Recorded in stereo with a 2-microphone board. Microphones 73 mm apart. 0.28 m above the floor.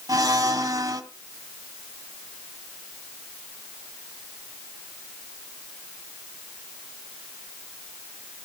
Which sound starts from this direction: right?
A blender, at 0.1 s.